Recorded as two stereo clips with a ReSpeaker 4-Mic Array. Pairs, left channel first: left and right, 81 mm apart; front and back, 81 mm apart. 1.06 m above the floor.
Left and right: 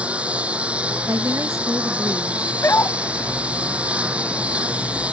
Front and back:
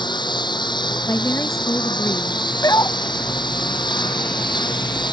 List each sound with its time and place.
0.0 s a lawn mower: 15° right
1.1 s a woman speaking: 45° right
2.6 s a dog barking: 35° left